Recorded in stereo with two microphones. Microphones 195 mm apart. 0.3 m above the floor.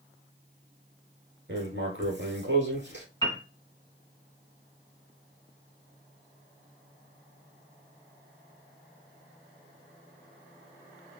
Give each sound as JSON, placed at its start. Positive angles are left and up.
{"t": 1.5, "sound": "writing", "side_deg": -60, "distance_m": 1.4}
{"t": 3.2, "sound": "a piano", "side_deg": 20, "distance_m": 1.8}